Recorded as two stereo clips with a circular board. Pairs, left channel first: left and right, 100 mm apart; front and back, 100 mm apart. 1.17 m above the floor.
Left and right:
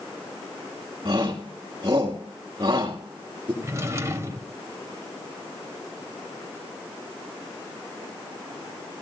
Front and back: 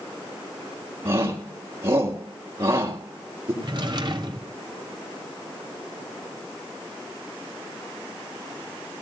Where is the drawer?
145° right, 1.8 m.